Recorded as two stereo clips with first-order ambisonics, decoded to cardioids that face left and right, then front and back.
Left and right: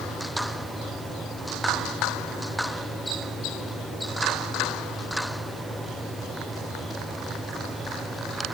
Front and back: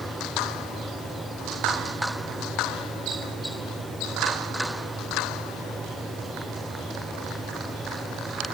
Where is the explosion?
No explosion in this recording.